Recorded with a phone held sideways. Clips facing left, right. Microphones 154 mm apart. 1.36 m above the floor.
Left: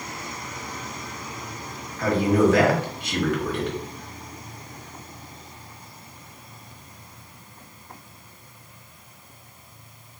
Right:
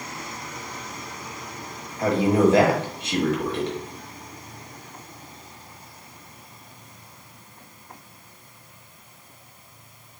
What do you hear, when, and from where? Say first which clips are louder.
2.0 s a man speaking: right 1 dB; 25° right (ahead or behind), 1.4 m